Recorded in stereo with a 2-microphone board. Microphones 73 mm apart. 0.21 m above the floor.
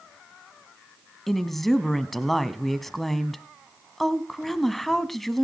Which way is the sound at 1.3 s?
Centre (ahead or behind).